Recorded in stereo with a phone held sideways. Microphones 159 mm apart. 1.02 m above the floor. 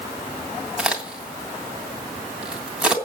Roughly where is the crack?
Centre.